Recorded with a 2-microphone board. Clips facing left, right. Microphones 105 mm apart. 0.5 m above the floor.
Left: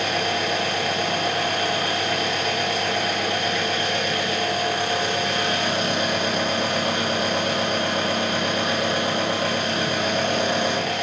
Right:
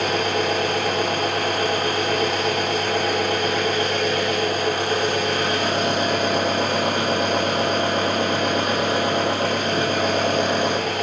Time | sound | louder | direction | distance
0.0 | an engine running | right 3 dB | 45° right (ahead or behind) | 4 m